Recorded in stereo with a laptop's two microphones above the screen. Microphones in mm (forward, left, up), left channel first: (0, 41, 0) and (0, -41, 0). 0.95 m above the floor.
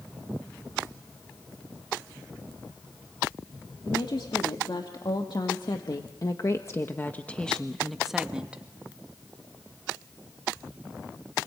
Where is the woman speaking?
70° left (ahead or behind), 2.5 m; by 8.6 s 15° right (ahead or behind), 1.8 m.